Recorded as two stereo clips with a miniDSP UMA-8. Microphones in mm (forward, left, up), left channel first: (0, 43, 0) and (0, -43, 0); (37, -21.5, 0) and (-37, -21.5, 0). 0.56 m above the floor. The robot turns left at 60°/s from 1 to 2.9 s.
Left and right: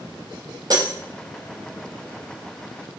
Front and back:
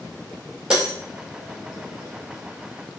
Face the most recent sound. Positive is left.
turn(degrees=140)